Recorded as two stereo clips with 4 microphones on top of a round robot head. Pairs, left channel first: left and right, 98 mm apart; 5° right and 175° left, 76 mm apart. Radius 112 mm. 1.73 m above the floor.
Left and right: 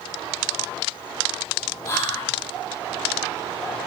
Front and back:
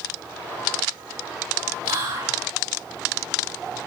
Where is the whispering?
150° left, 0.9 m.